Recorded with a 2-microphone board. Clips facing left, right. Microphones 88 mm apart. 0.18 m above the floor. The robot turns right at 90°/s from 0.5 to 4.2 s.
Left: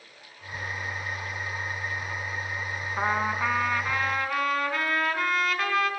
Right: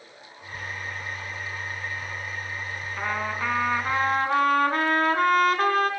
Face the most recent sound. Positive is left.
turn(degrees=-120)